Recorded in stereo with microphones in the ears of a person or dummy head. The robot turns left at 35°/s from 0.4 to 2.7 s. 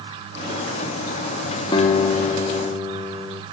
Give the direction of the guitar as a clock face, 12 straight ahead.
11 o'clock.